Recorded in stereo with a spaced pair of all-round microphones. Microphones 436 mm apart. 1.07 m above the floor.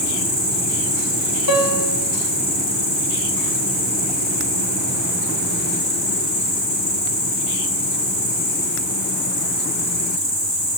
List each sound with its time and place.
0.0 s an insect: 65° left (ahead or behind), 3 m
1.5 s a piano: 55° left (ahead or behind), 1.0 m